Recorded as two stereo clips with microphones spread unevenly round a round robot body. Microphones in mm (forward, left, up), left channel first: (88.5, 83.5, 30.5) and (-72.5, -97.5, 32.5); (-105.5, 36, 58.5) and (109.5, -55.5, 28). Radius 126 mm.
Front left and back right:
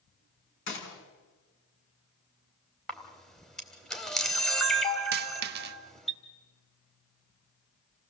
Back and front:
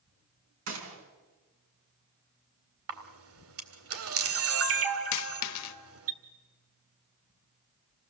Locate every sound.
0.7 s a gunshot: 5° left, 4.5 m
2.9 s a camera shutter: 40° right, 2 m
5.1 s a dropped coin: 175° left, 0.7 m